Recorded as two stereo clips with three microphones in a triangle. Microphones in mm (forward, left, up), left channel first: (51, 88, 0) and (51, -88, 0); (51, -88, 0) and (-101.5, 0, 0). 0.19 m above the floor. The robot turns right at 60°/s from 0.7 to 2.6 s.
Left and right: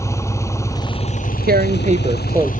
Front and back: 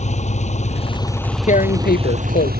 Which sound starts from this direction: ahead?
An engine running, at 0.0 s.